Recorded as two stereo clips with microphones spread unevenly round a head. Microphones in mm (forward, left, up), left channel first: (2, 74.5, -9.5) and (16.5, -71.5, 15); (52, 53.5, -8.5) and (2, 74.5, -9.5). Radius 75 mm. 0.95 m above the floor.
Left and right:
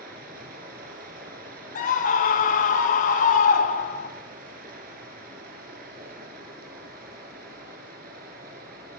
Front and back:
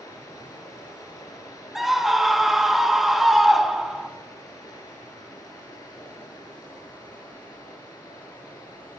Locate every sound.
0.0 s running water: 60° right, 3 m
1.8 s a scream: 70° left, 1.9 m